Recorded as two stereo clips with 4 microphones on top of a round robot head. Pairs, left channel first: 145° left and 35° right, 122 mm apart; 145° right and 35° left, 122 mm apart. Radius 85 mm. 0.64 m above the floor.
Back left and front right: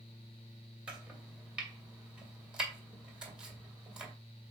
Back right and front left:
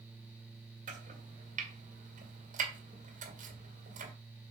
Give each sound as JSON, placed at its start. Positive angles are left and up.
{"t": 0.9, "sound": "chopping", "azimuth_deg": 45, "distance_m": 2.5}